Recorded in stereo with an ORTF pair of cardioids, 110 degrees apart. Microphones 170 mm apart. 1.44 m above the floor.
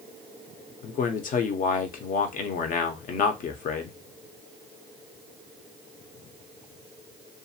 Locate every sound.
0.8 s a man speaking: 55° left, 0.9 m